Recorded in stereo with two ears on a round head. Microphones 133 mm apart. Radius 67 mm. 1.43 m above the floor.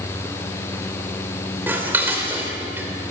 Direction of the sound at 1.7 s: 15° right (ahead or behind).